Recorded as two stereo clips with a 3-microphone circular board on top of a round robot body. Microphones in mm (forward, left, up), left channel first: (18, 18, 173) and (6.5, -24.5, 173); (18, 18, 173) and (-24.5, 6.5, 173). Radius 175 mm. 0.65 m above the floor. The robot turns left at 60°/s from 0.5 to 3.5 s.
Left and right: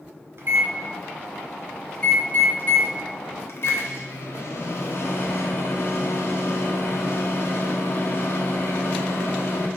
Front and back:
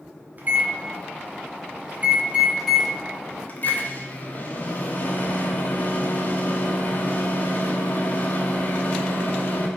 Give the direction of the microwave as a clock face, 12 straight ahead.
4 o'clock.